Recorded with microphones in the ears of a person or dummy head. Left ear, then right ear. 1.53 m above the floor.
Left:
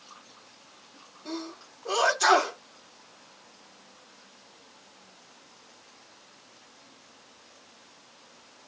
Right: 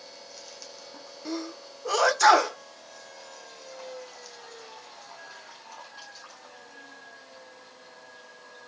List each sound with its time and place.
1.2 s a sneeze: 55° right (ahead or behind), 1.1 m